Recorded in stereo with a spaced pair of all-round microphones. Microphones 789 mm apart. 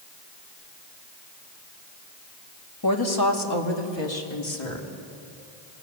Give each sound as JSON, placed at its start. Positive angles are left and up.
{"t": 2.8, "sound": "a woman speaking", "side_deg": 25, "distance_m": 2.0}